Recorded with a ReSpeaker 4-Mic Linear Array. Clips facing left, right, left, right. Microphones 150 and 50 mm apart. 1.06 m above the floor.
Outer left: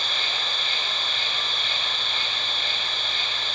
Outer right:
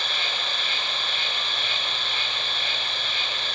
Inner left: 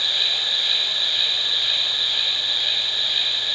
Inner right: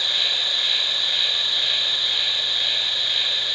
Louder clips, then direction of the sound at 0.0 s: Even, even; 70° right (ahead or behind).